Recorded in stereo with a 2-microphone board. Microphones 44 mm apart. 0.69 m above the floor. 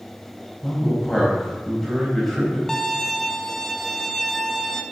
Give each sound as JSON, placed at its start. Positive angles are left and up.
{"t": 0.6, "sound": "a man speaking", "side_deg": 5, "distance_m": 3.5}
{"t": 2.7, "sound": "a violin", "side_deg": 5, "distance_m": 0.6}